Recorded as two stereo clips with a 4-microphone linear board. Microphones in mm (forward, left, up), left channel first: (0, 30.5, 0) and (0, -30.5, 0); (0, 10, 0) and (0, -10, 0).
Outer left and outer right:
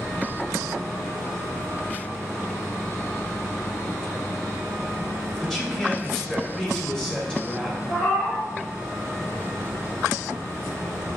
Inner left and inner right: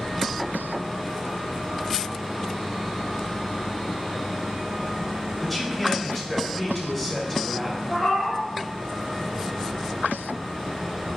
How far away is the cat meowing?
About 1.7 m.